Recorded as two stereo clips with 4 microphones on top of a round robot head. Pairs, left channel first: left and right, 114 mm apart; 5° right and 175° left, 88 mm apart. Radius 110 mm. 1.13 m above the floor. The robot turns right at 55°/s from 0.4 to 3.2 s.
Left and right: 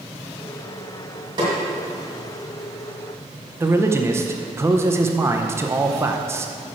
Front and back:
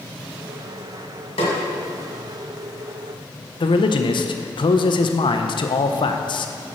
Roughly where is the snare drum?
Ahead right.